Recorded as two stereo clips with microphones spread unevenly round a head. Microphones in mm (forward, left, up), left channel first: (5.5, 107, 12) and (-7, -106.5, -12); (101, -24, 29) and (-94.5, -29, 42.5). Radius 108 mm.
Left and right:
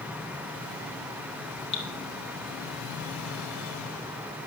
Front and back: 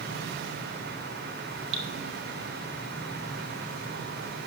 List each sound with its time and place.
1.7 s dripping: 150° left, 2 m